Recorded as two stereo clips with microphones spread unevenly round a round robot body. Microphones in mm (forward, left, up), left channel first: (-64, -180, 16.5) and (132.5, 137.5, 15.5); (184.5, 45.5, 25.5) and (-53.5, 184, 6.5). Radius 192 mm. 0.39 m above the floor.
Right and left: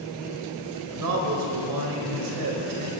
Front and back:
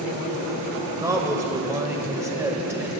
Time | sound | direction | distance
1.0 | a man speaking | 75° left | 2 m